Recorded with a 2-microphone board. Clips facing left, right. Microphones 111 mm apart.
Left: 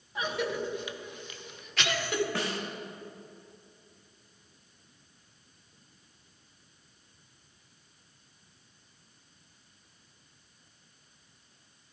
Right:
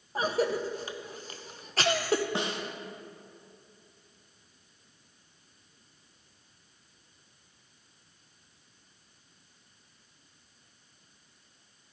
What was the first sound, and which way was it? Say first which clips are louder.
A cough: right 4 dB; 40° right (ahead or behind).